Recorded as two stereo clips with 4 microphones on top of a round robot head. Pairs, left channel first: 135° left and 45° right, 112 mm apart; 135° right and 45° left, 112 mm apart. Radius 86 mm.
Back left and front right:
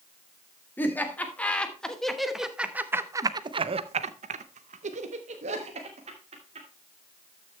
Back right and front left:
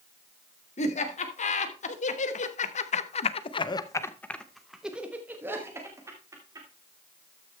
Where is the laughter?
155° right, 2.0 m; by 6.7 s 15° right, 2 m.